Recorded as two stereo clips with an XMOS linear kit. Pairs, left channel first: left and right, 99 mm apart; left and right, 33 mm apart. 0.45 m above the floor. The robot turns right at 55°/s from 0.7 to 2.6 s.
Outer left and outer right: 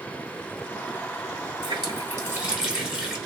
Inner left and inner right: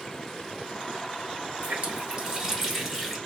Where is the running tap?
60° right, 1.9 m; by 3.2 s 5° right, 1.9 m.